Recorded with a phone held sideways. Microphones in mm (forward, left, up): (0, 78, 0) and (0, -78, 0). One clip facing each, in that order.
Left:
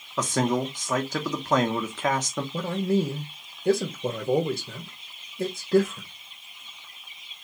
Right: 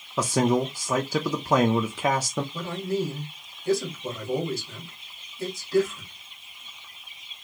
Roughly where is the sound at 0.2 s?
Centre.